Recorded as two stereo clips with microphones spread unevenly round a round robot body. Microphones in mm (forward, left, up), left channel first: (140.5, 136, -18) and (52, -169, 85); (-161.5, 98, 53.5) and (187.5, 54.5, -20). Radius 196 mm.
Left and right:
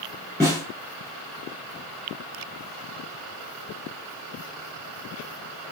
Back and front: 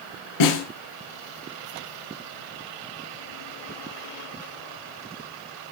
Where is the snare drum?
170° left, 7 m.